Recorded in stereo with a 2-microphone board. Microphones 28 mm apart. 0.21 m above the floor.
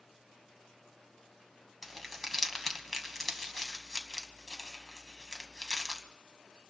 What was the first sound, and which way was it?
Crumpling, 5° left (ahead or behind).